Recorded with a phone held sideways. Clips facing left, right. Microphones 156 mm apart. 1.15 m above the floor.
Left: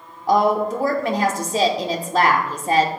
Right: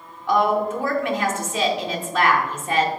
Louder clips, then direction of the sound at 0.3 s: Left 2 dB; 35° left (ahead or behind).